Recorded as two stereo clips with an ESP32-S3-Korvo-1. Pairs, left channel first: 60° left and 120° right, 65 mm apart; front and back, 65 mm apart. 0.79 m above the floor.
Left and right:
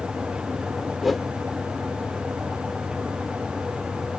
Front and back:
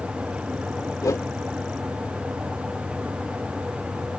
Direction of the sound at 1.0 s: 30° right.